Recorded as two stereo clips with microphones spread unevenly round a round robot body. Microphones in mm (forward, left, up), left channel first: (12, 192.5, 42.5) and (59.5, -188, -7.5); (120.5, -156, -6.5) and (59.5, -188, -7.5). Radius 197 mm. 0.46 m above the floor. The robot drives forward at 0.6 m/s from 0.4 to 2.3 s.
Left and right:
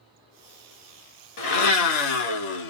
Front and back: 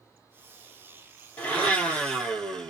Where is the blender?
65° left, 1.1 m; by 2.7 s 95° left, 1.0 m.